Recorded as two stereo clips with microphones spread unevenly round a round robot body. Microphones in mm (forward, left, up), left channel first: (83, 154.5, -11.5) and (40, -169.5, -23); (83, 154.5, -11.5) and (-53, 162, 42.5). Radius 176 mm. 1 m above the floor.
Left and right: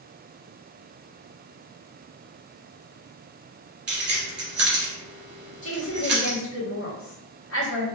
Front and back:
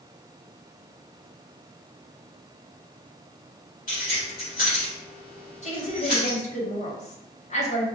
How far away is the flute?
I don't hear a flute.